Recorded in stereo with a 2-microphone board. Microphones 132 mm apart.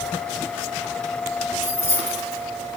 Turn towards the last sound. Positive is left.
turn(degrees=15)  # may be behind; listen again after turning